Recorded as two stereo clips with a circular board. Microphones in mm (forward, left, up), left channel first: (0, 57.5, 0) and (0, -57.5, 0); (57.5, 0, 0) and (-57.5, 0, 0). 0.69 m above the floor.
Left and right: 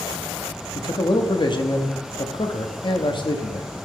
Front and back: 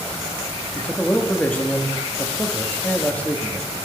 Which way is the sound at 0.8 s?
70° left.